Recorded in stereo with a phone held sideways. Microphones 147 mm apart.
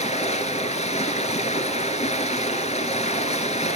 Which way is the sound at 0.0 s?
50° left (ahead or behind).